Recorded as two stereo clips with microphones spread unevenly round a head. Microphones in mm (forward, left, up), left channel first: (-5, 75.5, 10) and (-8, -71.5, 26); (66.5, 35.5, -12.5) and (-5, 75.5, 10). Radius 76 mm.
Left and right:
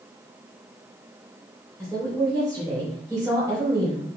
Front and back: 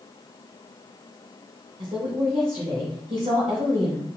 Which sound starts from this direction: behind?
A woman speaking, at 1.8 s.